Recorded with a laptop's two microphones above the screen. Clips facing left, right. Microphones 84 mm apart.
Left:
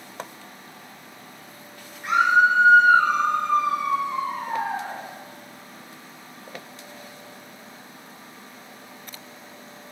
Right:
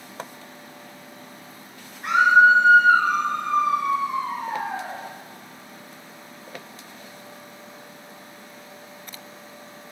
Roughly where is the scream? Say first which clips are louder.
Right 3 dB; right.